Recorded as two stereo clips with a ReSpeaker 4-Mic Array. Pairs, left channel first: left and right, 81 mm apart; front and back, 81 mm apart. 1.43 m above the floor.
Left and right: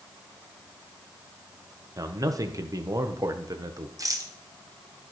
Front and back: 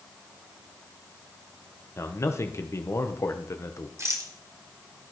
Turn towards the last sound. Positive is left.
turn(degrees=-130)